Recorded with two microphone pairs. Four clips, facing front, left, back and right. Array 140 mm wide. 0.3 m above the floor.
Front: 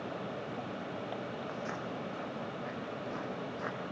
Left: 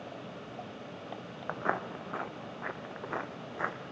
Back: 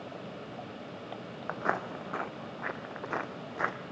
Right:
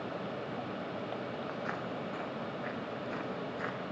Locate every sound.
1.5 s footsteps: 135° left, 0.6 m; by 3.8 s 155° left, 3 m